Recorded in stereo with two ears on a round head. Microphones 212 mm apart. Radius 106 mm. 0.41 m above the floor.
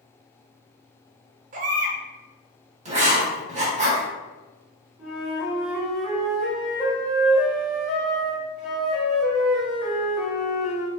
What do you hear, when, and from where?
1.5 s a baby crying: 35° right (ahead or behind), 0.5 m
2.9 s writing: 30° right (ahead or behind), 1.0 m
5.0 s a flute: centre (ahead or behind), 1.1 m